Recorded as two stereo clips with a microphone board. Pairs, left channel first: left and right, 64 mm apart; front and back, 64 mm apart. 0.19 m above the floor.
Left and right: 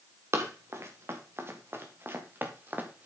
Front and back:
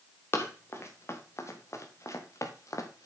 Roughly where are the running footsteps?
Ahead right.